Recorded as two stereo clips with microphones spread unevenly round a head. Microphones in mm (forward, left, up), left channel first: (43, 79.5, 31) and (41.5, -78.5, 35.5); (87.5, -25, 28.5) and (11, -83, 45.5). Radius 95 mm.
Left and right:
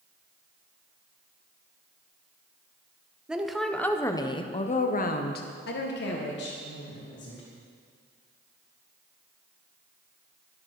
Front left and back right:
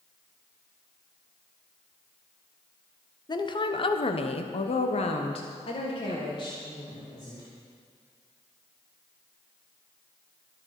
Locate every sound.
3.3 s a woman speaking: 5° right, 1.6 m; by 7.4 s 100° left, 3 m